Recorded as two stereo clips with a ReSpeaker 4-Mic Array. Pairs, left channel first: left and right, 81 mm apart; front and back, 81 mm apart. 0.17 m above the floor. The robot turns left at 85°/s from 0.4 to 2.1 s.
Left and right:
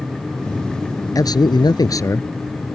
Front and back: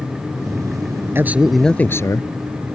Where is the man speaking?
125° left; by 2.8 s 45° left.